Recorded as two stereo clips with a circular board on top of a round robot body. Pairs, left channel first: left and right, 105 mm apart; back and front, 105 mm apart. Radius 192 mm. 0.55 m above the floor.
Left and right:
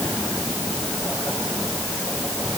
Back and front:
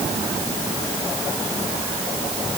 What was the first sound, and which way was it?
Only background noise.